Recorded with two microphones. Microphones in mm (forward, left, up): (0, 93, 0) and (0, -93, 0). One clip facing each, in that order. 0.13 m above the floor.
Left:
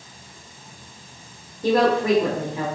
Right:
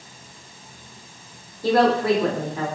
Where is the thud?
No thud in this recording.